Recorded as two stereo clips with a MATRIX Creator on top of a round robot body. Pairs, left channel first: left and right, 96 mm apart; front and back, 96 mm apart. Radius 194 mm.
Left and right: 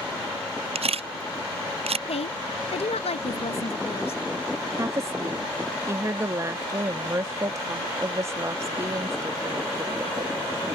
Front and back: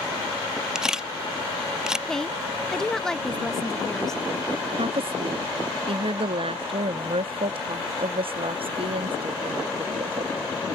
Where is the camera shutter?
95° right.